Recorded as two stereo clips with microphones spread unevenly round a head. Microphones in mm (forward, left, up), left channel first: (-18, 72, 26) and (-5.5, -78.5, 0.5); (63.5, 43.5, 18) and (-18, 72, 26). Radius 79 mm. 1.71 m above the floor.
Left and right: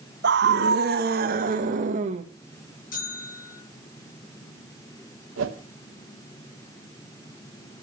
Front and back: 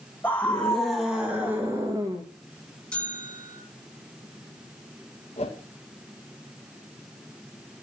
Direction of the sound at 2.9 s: 60° left.